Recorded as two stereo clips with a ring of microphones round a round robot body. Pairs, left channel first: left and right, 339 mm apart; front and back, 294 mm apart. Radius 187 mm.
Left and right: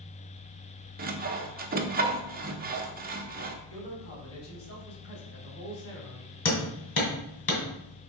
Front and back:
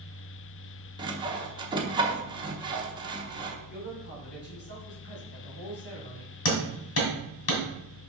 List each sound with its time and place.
1.0 s sawing: 120° right, 1.0 m
3.7 s a man speaking: 40° left, 3 m
6.5 s hammering: 35° left, 2 m